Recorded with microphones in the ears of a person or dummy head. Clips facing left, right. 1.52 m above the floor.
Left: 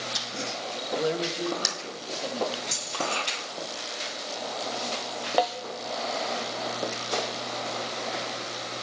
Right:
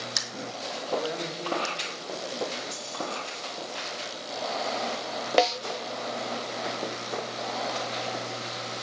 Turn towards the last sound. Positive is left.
turn(degrees=-30)  # may be behind; listen again after turning